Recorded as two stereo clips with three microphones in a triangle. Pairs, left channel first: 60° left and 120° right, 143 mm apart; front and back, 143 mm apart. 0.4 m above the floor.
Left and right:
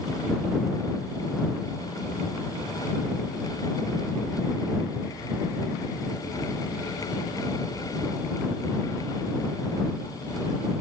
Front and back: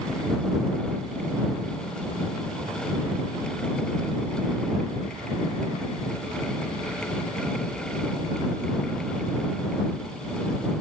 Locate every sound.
Only background noise.